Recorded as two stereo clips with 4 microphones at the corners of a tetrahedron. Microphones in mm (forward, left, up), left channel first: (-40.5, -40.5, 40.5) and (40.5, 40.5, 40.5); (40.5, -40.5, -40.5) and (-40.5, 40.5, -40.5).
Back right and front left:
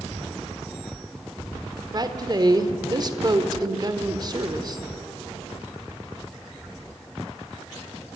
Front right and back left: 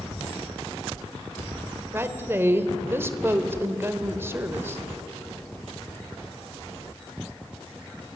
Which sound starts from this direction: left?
A woman speaking, at 1.9 s.